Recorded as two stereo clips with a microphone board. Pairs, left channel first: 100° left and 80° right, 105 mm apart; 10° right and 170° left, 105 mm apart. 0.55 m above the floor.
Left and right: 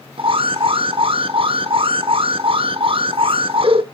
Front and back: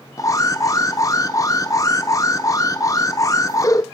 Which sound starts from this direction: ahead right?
An alarm, at 0.2 s.